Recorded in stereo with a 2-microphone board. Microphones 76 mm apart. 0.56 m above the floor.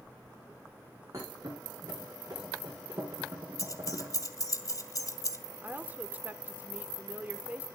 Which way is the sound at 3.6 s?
50° left (ahead or behind).